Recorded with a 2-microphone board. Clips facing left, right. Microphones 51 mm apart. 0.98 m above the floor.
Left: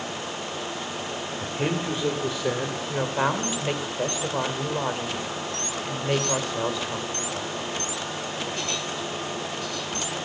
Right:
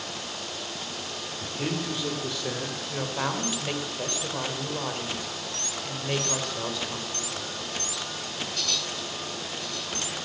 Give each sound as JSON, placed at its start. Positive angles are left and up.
{"t": 1.4, "sound": "a man speaking", "side_deg": 30, "distance_m": 1.9}
{"t": 2.9, "sound": "a woman speaking", "side_deg": 15, "distance_m": 3.5}